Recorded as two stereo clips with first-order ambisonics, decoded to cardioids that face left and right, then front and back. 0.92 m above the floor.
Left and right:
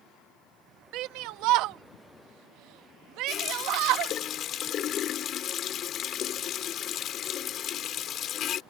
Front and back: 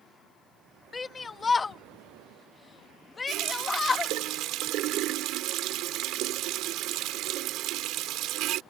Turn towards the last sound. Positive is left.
turn(degrees=145)